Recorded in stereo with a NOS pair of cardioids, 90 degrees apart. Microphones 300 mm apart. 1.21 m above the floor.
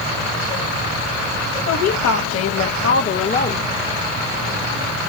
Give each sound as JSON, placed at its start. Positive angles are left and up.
{"t": 1.7, "sound": "a woman speaking", "azimuth_deg": 65, "distance_m": 2.0}